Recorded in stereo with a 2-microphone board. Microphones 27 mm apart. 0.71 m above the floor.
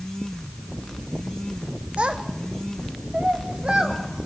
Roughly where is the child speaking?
Right.